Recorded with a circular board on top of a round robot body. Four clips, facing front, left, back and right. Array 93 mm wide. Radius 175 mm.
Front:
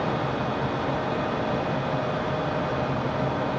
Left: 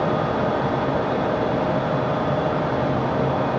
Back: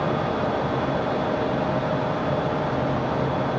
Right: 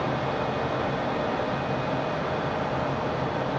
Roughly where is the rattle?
No rattle in this recording.